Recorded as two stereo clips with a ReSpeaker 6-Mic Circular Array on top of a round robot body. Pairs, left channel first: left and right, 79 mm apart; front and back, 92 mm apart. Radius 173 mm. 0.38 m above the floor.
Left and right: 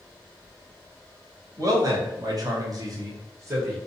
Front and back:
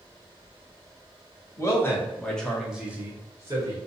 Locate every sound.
1.6 s a man speaking: 55° right, 1.5 m; by 3.8 s 140° right, 1.5 m